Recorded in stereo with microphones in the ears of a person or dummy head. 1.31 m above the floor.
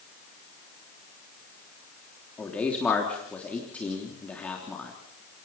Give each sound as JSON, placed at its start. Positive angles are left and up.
{"t": 2.4, "sound": "a man speaking", "side_deg": 5, "distance_m": 3.0}